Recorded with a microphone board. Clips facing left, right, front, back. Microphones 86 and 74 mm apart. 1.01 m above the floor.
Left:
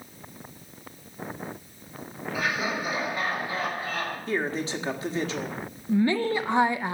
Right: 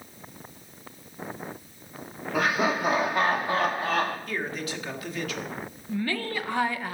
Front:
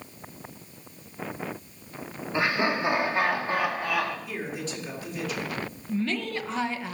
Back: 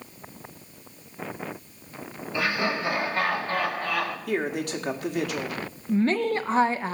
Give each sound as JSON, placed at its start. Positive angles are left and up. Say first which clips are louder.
{"t": 2.3, "sound": "laughter", "louder": "right 4 dB, front 1 dB", "azimuth_deg": -60, "distance_m": 2.5}
{"t": 4.3, "sound": "a man speaking", "louder": "left 4 dB, back 6 dB", "azimuth_deg": 150, "distance_m": 1.6}
{"t": 5.9, "sound": "a woman speaking", "louder": "left 7 dB, back 7 dB", "azimuth_deg": 150, "distance_m": 0.8}